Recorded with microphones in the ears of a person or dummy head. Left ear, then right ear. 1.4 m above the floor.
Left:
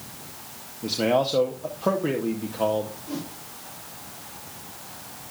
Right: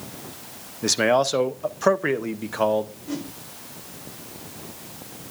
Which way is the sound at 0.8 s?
60° right (ahead or behind).